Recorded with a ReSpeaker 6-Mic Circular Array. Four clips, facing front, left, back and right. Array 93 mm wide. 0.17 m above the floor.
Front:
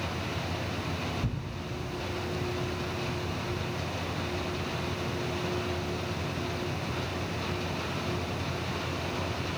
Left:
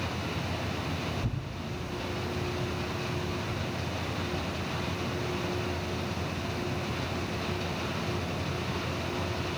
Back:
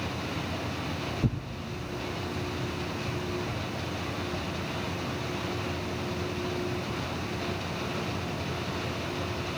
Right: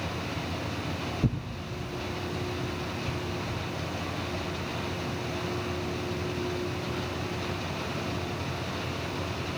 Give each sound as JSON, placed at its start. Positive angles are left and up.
{"t": 1.2, "sound": "tearing paper", "azimuth_deg": -125, "distance_m": 1.4}